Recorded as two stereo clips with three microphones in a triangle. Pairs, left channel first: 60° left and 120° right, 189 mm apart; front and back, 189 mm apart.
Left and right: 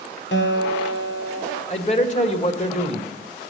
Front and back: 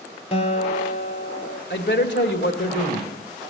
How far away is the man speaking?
About 2 m.